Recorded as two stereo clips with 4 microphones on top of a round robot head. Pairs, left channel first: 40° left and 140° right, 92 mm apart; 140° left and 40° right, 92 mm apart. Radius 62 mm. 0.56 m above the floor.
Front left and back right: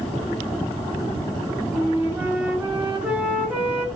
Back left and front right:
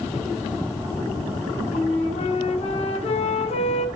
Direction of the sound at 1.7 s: 145° left.